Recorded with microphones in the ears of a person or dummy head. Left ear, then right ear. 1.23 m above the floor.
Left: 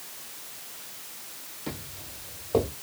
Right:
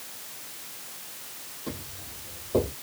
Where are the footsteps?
15° left (ahead or behind), 2.5 m; by 2.7 s 20° left (ahead or behind), 3 m.